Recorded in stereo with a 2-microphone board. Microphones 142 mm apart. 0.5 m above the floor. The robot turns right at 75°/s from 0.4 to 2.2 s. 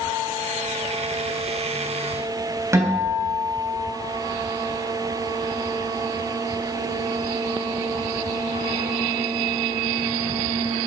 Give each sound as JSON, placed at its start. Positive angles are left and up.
{"t": 2.7, "sound": "a guitar", "side_deg": -20, "distance_m": 3.5}